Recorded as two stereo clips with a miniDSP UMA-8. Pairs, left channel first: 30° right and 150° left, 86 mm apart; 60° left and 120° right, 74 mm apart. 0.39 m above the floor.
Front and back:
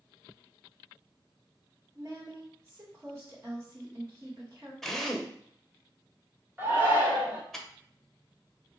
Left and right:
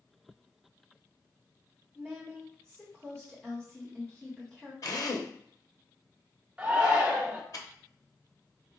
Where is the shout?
175° left, 1.2 m.